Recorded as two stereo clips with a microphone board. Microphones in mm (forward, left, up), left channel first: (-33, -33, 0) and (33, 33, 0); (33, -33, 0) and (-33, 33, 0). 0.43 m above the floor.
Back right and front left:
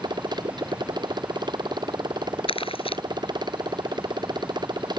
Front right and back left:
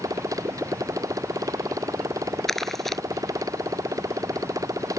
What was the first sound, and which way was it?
A motorcycle, 85° left.